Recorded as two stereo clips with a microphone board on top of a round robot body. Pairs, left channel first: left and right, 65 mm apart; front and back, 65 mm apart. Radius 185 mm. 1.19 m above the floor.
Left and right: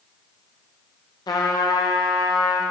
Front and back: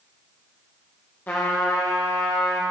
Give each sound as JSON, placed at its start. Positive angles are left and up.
{"t": 1.3, "sound": "a trumpet", "azimuth_deg": 70, "distance_m": 0.5}